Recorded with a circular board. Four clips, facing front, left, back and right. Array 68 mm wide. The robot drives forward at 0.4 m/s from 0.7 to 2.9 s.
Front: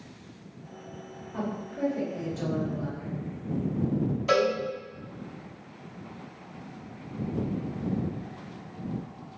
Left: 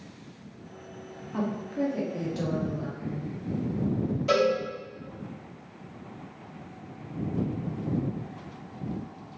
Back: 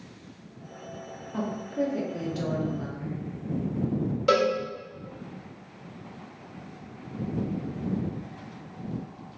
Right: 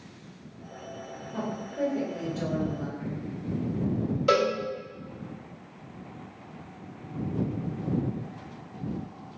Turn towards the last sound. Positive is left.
turn(degrees=-155)